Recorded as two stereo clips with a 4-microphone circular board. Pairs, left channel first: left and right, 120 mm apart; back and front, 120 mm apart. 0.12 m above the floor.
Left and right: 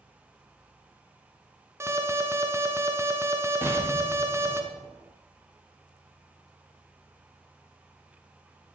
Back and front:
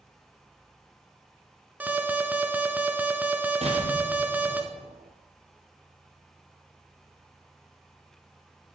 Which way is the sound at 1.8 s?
60° right.